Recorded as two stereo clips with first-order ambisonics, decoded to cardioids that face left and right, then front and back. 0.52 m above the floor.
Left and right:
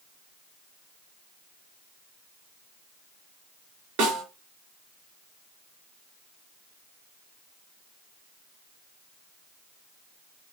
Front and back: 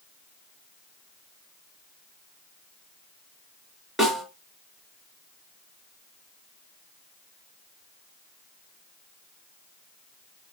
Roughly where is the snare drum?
Right.